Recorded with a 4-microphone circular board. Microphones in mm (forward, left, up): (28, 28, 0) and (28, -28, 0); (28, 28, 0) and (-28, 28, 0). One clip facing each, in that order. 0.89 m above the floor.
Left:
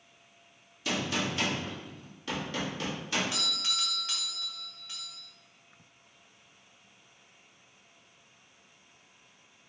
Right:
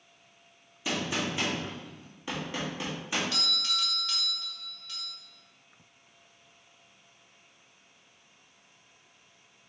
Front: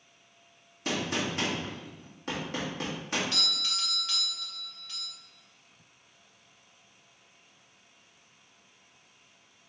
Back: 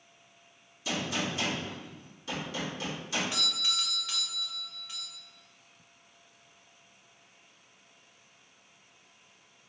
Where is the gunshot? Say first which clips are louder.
Even, front 2 dB; 20° right, 1.4 m.